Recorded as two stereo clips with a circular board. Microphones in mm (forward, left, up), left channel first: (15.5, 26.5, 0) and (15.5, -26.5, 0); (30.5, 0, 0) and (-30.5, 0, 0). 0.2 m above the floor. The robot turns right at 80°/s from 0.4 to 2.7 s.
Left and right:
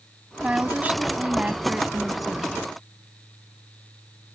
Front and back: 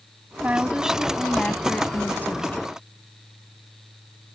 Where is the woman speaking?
145° right; by 2.6 s 30° left.